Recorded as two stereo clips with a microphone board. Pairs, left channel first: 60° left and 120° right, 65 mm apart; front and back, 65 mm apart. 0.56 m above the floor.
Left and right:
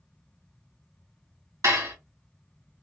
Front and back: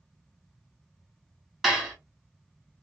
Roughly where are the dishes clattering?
Right.